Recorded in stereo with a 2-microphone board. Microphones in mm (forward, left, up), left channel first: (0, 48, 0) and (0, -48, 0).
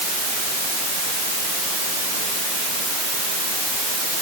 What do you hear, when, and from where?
Only background noise.